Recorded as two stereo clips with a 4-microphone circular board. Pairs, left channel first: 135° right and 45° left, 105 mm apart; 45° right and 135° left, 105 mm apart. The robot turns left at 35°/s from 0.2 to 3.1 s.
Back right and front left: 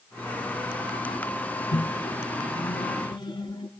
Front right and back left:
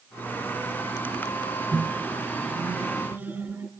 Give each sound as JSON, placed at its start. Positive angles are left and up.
{"t": 1.7, "sound": "a microwave", "azimuth_deg": -110, "distance_m": 1.3}